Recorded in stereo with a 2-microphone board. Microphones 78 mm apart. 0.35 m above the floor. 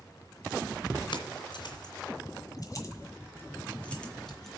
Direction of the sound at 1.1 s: 70° left (ahead or behind).